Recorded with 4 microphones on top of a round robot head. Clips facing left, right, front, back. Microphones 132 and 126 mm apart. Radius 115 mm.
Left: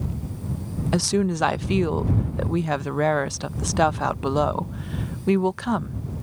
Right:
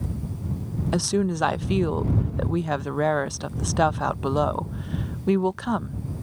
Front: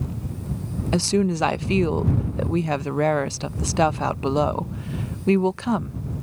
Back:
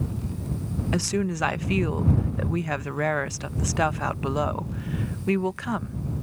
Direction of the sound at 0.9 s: Straight ahead.